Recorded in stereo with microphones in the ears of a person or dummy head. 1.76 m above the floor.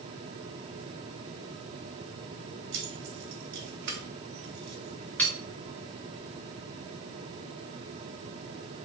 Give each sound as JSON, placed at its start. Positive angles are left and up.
{"t": 2.7, "sound": "keys jangling", "side_deg": -75, "distance_m": 2.0}